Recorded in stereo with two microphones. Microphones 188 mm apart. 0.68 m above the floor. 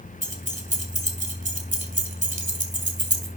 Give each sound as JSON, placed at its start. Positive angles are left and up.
{"t": 0.2, "sound": "keys jangling", "side_deg": -45, "distance_m": 2.0}